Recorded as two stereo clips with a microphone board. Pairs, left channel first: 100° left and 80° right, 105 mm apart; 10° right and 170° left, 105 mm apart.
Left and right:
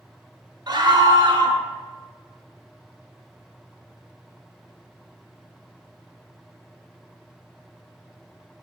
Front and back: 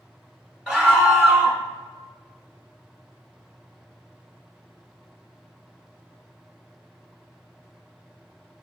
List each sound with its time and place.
0.7 s a scream: 110° right, 1.3 m